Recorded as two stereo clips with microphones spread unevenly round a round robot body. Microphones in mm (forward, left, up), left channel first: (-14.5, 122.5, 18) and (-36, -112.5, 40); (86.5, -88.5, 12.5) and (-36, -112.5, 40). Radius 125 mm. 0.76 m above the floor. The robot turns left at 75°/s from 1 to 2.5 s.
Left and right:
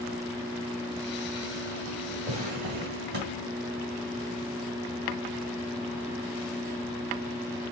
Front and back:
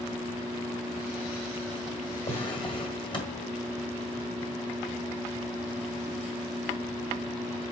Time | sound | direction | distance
2.3 | a drawer | 25° right | 1.9 m